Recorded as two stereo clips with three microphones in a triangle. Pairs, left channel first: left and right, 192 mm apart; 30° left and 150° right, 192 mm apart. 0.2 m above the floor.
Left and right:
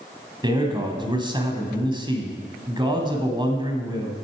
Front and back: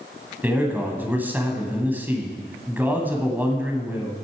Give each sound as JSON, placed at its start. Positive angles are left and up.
{"t": 0.4, "sound": "a man speaking", "azimuth_deg": -85, "distance_m": 1.3}